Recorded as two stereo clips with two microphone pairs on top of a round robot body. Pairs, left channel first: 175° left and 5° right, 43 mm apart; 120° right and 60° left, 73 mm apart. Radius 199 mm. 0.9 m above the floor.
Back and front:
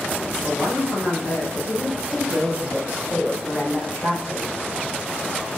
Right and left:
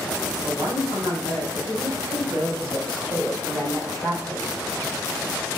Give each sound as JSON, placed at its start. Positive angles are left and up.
{"t": 0.3, "sound": "a woman speaking", "azimuth_deg": 45, "distance_m": 4.0}